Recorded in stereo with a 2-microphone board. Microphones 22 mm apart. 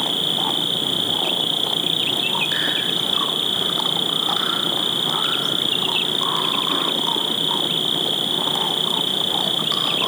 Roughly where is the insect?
Centre.